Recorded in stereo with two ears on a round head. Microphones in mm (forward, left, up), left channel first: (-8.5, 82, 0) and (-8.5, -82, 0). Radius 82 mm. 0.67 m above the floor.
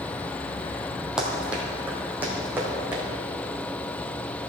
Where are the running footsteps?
5° right (ahead or behind), 1.5 m; by 3.0 s 10° right (ahead or behind), 3.5 m.